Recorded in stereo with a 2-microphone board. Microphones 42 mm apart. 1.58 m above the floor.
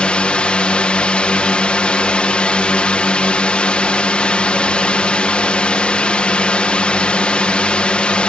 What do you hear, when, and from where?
0.0 s a drone: 25° left (ahead or behind)